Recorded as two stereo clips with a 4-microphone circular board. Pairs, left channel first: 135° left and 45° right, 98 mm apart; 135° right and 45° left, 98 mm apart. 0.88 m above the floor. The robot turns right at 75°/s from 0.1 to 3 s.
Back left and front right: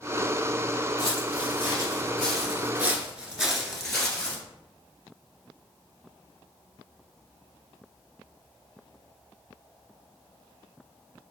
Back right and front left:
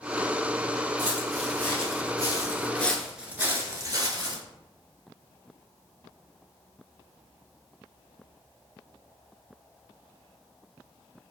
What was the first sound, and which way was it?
Footsteps, 105° left.